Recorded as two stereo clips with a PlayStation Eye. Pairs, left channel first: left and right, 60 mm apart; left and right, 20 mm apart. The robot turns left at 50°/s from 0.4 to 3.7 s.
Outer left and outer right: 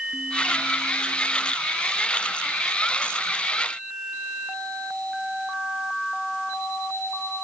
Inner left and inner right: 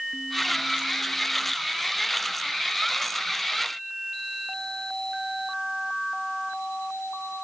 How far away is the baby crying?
No baby crying in this recording.